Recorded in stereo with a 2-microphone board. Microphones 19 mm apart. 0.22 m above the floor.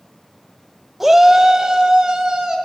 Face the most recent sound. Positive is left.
turn(degrees=-45)  # may be behind; listen again after turning